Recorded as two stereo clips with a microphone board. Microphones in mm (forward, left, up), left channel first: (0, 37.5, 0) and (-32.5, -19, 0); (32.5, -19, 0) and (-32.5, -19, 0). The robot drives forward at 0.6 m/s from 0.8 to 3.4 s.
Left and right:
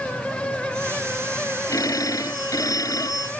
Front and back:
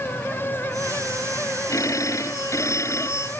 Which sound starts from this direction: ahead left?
A phone ringing, at 1.7 s.